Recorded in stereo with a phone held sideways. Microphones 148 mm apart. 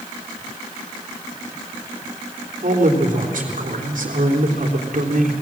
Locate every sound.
2.6 s a man speaking: 65° right (ahead or behind), 3.5 m